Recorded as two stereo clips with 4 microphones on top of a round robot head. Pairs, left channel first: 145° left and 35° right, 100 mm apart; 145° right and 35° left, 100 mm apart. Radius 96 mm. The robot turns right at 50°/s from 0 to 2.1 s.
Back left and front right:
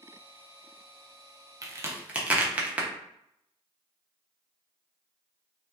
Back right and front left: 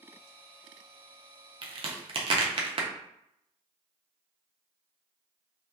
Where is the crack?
15° left, 0.8 m; by 2.9 s 40° left, 0.8 m.